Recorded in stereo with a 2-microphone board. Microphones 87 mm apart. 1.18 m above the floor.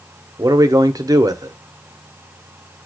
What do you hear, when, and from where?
0.4 s a man speaking: 40° right (ahead or behind), 0.6 m